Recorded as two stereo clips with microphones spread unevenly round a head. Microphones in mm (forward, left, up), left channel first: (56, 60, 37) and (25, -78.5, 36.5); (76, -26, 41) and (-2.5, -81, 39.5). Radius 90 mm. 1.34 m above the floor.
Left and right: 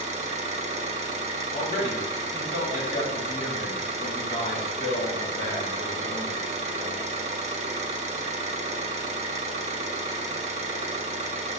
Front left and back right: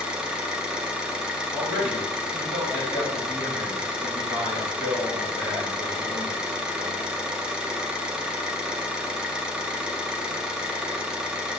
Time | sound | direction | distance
0.0 | an engine running | 65° right | 0.8 m
1.5 | a man speaking | 145° left | 1.5 m